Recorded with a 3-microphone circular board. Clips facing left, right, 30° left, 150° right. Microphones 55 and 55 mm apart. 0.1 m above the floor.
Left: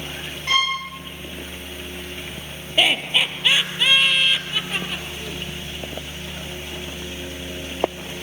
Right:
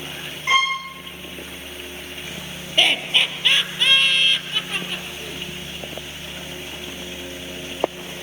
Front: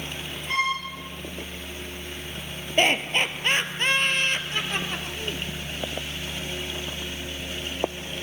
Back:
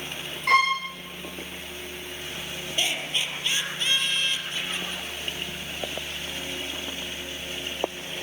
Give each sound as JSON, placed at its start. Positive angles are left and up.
{"t": 0.5, "sound": "a violin", "azimuth_deg": -160, "distance_m": 6.5}
{"t": 2.8, "sound": "laughter", "azimuth_deg": 5, "distance_m": 2.5}